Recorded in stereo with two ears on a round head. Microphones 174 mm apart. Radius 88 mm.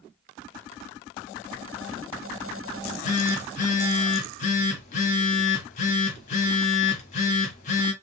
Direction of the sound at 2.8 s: 40° left (ahead or behind).